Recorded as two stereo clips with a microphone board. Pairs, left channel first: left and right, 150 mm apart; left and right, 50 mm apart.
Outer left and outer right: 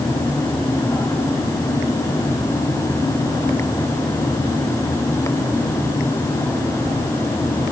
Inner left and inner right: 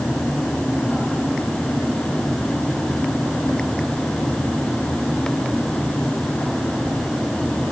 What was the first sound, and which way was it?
Only background noise.